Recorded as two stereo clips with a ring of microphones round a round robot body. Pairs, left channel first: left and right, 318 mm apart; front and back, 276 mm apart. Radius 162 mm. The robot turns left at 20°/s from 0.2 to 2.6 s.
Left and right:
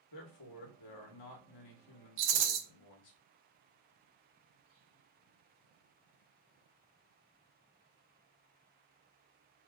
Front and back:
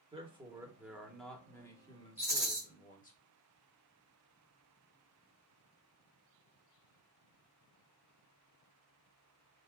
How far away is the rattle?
About 0.9 m.